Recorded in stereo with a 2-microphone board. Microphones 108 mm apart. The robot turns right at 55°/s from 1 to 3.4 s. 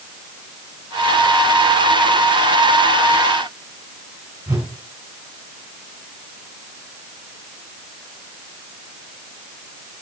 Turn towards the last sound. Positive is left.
turn(degrees=-20)  # may be behind; listen again after turning